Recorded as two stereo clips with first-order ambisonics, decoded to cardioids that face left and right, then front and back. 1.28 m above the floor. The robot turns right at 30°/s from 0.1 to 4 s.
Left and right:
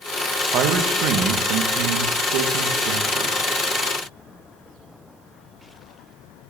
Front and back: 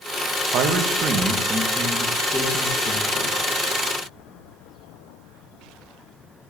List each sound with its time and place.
0.5 s a man speaking: 135° right, 0.9 m; by 3.4 s 50° right, 0.9 m